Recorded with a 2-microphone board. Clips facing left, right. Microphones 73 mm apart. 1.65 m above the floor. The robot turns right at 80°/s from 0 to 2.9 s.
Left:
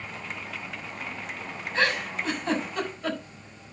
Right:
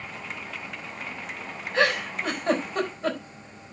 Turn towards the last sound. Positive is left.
turn(degrees=-30)  # may be behind; listen again after turning